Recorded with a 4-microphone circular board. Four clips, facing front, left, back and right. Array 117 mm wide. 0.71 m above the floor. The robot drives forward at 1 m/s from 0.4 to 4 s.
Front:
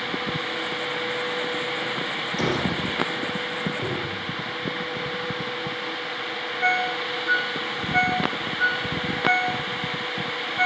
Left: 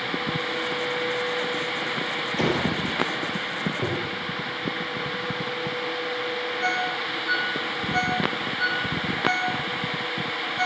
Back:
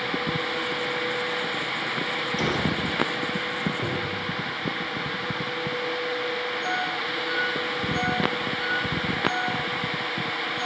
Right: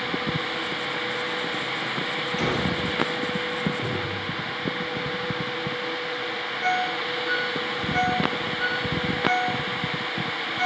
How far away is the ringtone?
About 2.5 m.